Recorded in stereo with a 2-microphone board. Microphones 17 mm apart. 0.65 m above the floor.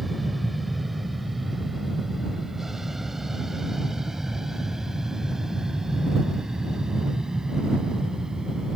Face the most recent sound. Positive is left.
turn(degrees=-40)  # may be behind; listen again after turning